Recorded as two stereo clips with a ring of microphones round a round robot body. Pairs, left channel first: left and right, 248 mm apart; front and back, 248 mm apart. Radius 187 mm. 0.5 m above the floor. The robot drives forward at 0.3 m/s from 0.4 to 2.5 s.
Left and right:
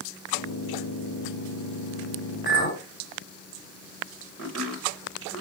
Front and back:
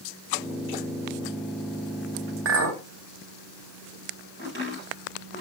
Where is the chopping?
130° right, 2 m.